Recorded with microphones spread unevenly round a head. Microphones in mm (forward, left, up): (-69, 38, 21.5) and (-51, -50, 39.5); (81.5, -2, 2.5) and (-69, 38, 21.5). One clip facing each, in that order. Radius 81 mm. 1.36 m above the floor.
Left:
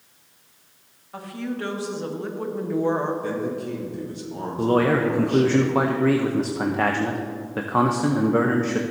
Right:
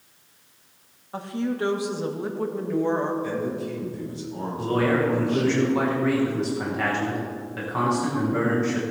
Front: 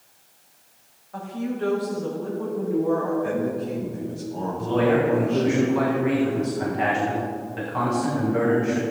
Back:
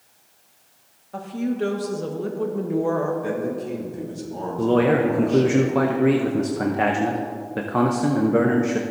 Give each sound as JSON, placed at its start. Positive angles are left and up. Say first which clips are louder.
{"t": 1.1, "sound": "a woman speaking", "louder": "right 3 dB, back 4 dB", "azimuth_deg": -140, "distance_m": 1.7}
{"t": 3.2, "sound": "a man speaking", "louder": "left 1 dB, front 1 dB", "azimuth_deg": 130, "distance_m": 3.5}
{"t": 4.6, "sound": "a man speaking", "louder": "left 3 dB, back 3 dB", "azimuth_deg": 135, "distance_m": 0.9}